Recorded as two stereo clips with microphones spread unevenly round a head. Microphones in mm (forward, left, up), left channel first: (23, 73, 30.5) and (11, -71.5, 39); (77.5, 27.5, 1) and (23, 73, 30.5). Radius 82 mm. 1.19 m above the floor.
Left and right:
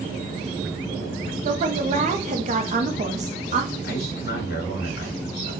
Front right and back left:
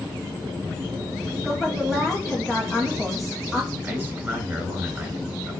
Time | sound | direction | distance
1.4 | a woman speaking | 105° right | 0.8 m
3.8 | a man speaking | 75° left | 1.9 m